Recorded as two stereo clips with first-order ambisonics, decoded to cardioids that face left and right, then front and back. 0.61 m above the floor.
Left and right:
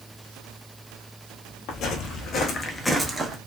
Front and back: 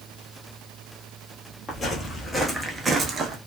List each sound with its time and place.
1.7 s footsteps: 65° left, 0.9 m; by 3.4 s 145° right, 0.7 m